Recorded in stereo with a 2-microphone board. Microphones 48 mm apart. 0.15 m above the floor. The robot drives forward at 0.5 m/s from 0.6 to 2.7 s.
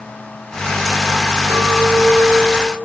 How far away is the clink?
About 3 m.